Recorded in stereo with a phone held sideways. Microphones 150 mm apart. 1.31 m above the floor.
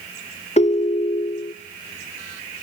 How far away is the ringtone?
About 0.5 m.